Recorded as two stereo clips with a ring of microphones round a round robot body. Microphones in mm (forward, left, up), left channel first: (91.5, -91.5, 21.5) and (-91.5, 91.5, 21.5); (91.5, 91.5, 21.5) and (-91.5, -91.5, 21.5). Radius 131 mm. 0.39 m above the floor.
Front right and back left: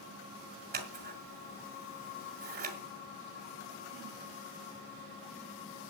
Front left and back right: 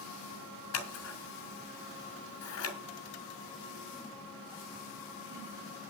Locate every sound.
0.7 s scissors: 80° left, 4 m